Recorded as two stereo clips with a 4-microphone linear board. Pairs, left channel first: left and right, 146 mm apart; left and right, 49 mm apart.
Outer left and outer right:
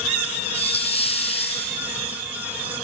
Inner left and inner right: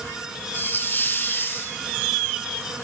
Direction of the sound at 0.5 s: 45° left (ahead or behind).